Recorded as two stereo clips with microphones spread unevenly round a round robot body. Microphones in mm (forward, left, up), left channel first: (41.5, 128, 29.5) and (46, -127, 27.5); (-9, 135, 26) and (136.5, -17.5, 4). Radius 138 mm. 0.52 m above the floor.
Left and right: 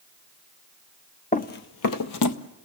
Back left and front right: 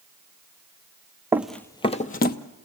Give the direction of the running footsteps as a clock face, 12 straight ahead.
11 o'clock.